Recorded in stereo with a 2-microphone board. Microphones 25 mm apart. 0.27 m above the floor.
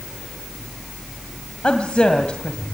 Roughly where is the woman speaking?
Left.